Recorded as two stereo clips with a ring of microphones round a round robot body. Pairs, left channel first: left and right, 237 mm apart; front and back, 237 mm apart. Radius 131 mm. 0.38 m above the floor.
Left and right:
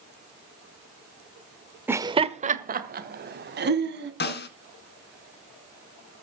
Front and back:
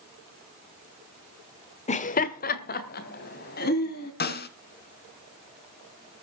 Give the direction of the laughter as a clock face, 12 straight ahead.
1 o'clock.